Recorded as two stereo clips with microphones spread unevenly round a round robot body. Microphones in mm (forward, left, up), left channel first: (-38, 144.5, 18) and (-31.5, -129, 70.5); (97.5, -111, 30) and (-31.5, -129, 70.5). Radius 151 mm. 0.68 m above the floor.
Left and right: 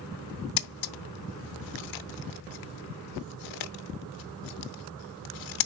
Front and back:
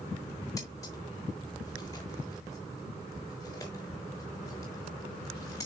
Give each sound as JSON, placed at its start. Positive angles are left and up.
{"t": 0.6, "sound": "scissors", "azimuth_deg": 90, "distance_m": 0.7}